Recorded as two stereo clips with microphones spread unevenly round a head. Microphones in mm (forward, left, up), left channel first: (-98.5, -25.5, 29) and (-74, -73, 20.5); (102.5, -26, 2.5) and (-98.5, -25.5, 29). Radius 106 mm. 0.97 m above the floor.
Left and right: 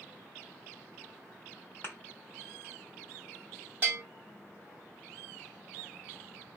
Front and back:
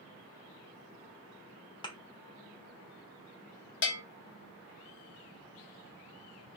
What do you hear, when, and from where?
1.8 s a thud: 70° left, 0.7 m
3.8 s a bell: straight ahead, 0.9 m